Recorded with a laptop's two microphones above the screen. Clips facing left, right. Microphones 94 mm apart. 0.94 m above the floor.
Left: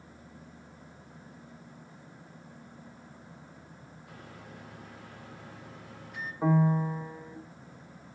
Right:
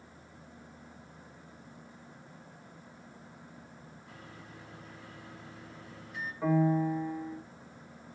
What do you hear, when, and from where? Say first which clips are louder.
4.1 s a microwave: left 3 dB; 70° left (ahead or behind), 2.5 m
6.4 s a piano: left 1 dB; 25° left (ahead or behind), 0.7 m